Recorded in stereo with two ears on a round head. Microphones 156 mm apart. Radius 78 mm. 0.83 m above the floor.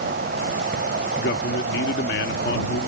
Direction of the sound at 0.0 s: 55° right (ahead or behind).